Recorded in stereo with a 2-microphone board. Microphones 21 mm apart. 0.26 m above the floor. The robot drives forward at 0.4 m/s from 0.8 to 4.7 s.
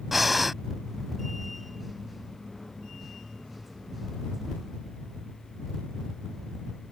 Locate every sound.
0.1 s breathing: 5° right (ahead or behind)